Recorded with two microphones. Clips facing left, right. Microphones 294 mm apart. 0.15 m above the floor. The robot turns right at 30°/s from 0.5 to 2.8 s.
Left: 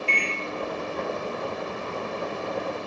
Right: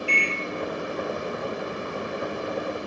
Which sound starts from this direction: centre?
A microwave, at 0.1 s.